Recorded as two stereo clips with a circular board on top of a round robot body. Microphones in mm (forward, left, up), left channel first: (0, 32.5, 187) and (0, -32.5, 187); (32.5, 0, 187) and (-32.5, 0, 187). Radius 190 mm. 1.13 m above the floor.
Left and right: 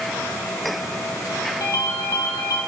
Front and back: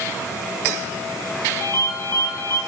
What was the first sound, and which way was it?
A ringtone, 55° left.